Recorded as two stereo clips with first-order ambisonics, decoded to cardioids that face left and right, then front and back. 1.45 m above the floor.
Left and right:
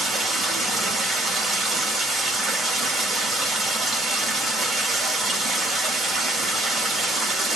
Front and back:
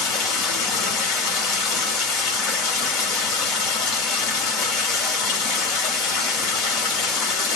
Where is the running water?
5° right, 1.9 m.